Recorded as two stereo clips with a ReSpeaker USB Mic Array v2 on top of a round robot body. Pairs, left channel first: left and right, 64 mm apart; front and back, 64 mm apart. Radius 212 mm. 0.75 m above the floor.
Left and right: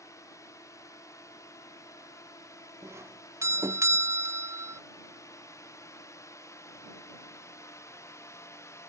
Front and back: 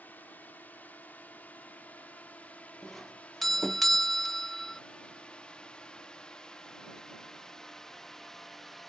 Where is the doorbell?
85° right.